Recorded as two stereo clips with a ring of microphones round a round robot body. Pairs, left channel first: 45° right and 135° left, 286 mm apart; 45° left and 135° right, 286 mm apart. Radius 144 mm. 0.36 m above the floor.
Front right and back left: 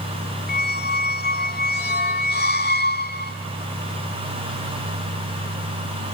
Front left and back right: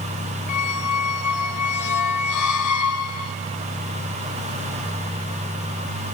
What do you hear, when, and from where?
0.5 s a squeak: 15° left, 0.6 m